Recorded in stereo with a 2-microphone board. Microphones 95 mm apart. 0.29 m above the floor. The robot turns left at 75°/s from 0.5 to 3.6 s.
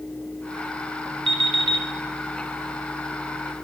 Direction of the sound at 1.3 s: 80° right.